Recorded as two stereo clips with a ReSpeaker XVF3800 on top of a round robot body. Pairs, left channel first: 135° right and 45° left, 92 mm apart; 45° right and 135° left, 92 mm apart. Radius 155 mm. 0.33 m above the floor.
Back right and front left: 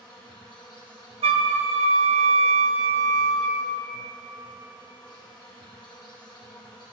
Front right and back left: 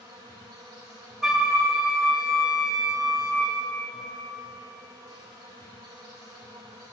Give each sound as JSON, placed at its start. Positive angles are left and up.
{"t": 0.0, "sound": "an insect", "azimuth_deg": 180, "distance_m": 3.0}
{"t": 1.2, "sound": "a flute", "azimuth_deg": 45, "distance_m": 0.6}